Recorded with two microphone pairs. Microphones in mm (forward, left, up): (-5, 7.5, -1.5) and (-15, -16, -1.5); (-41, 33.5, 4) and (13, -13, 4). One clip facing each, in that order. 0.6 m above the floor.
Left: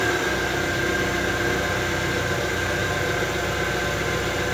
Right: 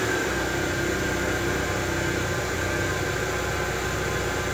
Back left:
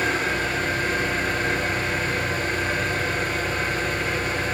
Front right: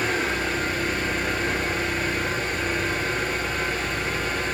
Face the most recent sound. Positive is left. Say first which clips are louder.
# left 3 dB, back left 1 dB
turn(degrees=80)